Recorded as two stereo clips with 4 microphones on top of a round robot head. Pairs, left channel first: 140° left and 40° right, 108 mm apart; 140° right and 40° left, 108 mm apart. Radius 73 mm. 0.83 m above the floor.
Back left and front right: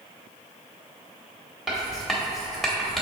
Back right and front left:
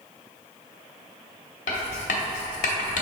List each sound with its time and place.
1.7 s writing: 130° right, 0.8 m